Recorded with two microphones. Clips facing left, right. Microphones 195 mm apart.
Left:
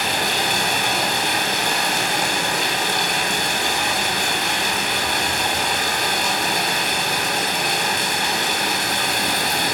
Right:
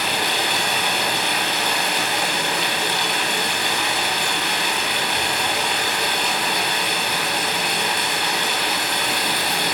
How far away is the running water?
About 2.5 m.